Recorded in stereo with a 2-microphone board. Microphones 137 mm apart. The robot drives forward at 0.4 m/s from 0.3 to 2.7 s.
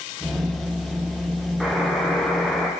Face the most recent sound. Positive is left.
turn(degrees=0)  # may be behind; listen again after turning